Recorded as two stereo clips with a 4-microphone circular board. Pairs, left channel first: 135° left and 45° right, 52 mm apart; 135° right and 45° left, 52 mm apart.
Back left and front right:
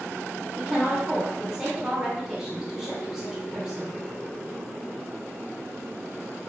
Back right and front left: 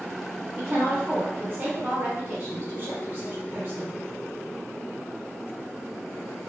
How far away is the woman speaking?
About 1.0 m.